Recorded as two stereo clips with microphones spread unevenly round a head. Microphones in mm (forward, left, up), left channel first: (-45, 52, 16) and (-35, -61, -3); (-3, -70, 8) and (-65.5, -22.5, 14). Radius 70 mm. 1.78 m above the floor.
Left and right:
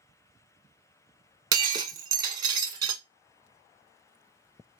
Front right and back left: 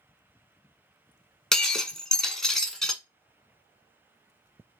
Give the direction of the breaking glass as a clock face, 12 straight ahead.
4 o'clock.